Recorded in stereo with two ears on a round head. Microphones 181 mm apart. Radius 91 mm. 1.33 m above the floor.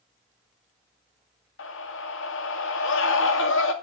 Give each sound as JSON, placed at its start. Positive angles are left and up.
{"t": 1.6, "sound": "a scream", "side_deg": 70, "distance_m": 2.0}